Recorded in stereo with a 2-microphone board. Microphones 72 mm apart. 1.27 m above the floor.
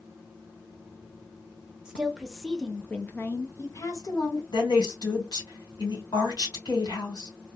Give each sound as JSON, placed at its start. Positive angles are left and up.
{"t": 1.9, "sound": "a woman speaking", "side_deg": -10, "distance_m": 1.0}
{"t": 4.5, "sound": "a woman speaking", "side_deg": 75, "distance_m": 1.4}